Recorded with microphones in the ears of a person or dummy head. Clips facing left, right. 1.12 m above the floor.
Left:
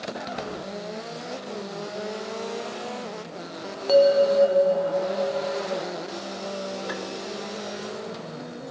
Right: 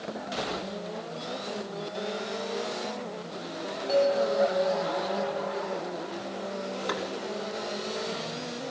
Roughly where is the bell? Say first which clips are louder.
Left 7 dB; left.